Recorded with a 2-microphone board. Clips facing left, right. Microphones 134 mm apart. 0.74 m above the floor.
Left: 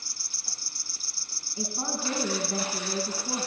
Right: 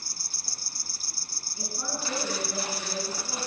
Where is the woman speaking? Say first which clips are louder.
Left 3 dB; 50° left (ahead or behind), 8 m.